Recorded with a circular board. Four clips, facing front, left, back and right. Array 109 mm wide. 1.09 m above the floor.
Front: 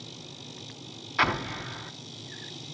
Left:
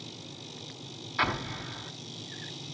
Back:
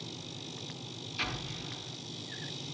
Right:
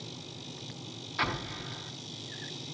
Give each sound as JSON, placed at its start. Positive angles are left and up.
{"t": 1.2, "sound": "an explosion", "azimuth_deg": 10, "distance_m": 1.1}